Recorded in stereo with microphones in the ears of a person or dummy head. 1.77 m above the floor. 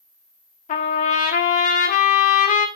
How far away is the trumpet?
About 0.6 m.